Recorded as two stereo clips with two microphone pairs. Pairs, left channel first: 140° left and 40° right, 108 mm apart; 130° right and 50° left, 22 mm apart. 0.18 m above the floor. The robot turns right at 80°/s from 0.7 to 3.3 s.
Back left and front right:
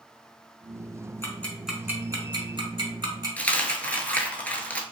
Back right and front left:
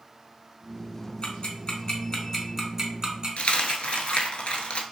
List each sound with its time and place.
1.2 s ticking: 160° right, 0.9 m; by 4.3 s 5° left, 0.9 m
3.4 s a dropped coin: 145° right, 0.6 m